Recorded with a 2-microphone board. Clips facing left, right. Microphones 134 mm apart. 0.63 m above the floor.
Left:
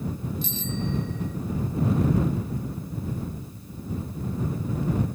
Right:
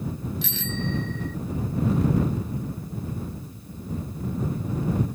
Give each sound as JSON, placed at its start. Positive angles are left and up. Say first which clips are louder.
{"t": 0.4, "sound": "a bicycle bell", "louder": "even", "side_deg": -80}